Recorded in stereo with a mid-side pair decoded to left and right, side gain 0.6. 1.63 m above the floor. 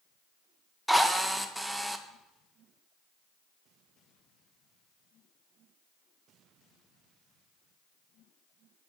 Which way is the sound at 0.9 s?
5° right.